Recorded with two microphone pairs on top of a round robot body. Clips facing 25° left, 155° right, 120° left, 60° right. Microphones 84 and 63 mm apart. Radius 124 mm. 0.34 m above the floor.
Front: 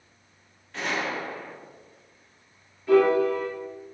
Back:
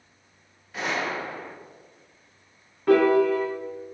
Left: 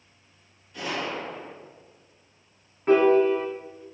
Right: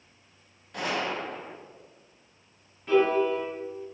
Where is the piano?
170° left, 1.6 m.